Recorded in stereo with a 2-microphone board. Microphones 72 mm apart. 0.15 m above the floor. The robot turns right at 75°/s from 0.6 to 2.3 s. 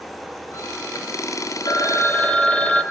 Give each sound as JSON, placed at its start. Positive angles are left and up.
{"t": 1.6, "sound": "a phone ringing", "azimuth_deg": 115, "distance_m": 2.0}